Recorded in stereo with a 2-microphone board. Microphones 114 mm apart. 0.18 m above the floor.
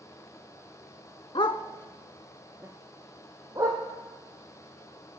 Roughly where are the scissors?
I don't hear scissors.